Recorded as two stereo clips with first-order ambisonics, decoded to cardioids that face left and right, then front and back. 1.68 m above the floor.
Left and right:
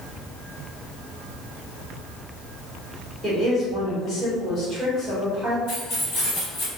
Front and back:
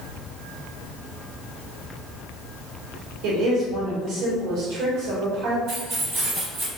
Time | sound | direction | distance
3.2 | a woman speaking | 175° left | 1.2 m
5.7 | keys jangling | 135° left | 2.0 m